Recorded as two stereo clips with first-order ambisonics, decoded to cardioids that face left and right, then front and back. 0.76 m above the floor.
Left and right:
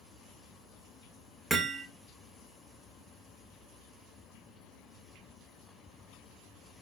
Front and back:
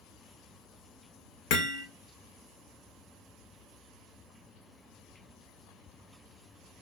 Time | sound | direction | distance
1.5 | hammering | 5° right | 1.6 m